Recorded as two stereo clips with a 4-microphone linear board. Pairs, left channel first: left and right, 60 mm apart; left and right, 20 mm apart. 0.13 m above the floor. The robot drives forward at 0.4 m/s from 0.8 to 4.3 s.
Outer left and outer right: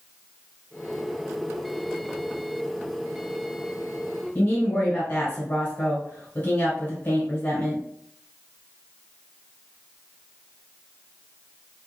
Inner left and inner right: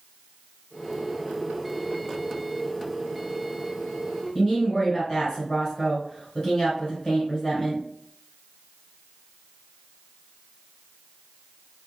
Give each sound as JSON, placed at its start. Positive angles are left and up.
{"t": 4.3, "sound": "a woman speaking", "side_deg": 35, "distance_m": 1.7}